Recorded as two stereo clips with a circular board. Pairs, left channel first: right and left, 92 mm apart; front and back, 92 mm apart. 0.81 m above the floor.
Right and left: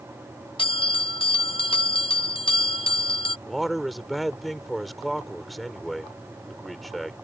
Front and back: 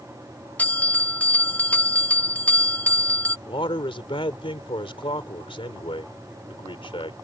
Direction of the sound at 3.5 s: Straight ahead.